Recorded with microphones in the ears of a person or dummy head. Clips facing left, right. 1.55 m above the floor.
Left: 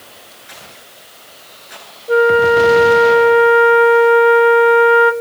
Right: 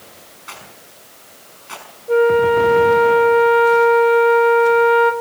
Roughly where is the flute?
Centre.